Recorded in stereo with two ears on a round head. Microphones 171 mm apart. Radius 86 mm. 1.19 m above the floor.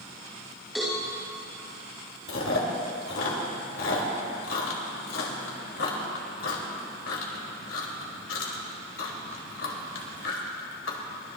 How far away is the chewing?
About 3 m.